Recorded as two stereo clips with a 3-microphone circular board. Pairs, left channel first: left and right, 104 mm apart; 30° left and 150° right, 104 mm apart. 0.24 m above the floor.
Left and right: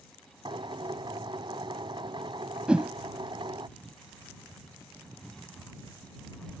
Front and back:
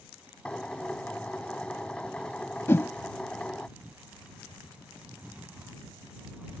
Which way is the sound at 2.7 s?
20° right.